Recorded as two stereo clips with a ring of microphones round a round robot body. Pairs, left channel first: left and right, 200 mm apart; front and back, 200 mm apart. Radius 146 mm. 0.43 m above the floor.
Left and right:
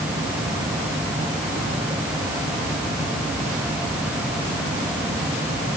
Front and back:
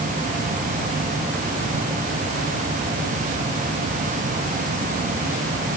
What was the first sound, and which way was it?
Only background noise.